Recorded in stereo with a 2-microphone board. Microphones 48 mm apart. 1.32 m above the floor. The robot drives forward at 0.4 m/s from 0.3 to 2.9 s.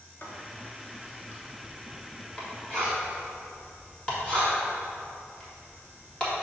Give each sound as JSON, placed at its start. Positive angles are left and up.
{"t": 0.2, "sound": "writing", "side_deg": 45, "distance_m": 1.1}